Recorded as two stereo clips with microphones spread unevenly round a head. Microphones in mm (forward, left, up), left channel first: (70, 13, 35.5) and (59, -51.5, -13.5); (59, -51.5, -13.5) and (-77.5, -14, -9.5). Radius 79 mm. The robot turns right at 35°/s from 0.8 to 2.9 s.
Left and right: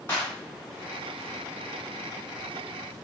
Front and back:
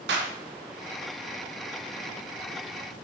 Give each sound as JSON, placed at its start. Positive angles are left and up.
{"t": 0.1, "sound": "a clap", "azimuth_deg": 155, "distance_m": 1.3}